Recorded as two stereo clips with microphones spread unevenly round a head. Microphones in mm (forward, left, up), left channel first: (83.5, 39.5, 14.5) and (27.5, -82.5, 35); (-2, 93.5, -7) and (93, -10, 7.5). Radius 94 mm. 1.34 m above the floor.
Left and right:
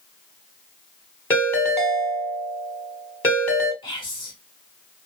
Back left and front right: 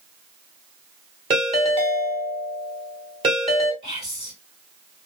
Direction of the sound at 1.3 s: 15° right.